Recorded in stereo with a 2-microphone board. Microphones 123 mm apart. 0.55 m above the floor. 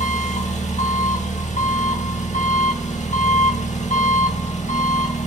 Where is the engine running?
75° left (ahead or behind), 0.8 m.